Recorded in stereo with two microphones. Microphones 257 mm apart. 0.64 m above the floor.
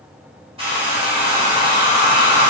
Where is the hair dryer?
20° right (ahead or behind), 1.4 m.